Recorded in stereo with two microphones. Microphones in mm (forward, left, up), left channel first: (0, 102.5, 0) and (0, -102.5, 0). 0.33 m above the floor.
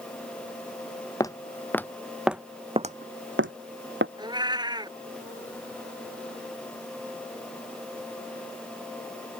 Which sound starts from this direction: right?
A cat meowing, at 4.2 s.